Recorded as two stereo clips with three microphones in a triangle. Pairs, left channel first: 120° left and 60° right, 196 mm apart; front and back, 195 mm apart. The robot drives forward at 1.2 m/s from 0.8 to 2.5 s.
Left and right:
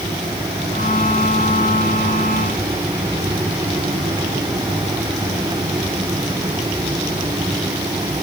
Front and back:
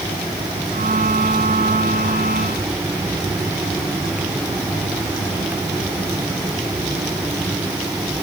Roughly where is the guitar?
No guitar in this recording.